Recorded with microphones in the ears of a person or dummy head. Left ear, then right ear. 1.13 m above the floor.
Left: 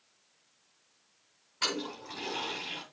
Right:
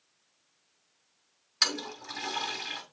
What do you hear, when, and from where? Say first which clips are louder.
1.6 s a toilet flushing: right 4 dB; 65° right (ahead or behind), 2.0 m